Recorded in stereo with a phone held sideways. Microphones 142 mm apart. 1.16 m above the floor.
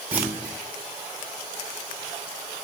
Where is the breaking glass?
I don't hear breaking glass.